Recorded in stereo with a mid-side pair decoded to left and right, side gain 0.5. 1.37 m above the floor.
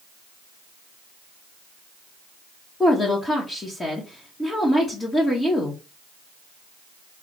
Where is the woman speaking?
20° left, 1.6 m.